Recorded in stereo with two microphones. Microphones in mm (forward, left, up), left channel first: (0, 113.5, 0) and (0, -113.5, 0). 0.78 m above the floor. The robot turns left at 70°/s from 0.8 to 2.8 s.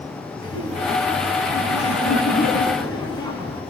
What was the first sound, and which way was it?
Laughter, 160° left.